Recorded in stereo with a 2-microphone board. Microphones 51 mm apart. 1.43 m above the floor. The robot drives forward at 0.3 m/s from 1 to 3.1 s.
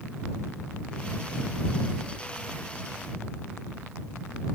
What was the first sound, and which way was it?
Only background noise.